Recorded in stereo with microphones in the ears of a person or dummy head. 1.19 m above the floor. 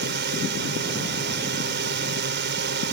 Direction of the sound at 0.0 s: 55° right (ahead or behind).